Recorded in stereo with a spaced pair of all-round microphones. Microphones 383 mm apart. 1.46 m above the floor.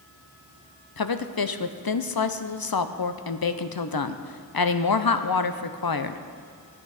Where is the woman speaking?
65° left (ahead or behind), 0.6 m.